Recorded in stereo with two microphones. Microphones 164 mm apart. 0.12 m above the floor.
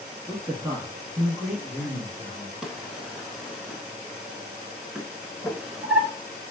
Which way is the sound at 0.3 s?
15° right (ahead or behind).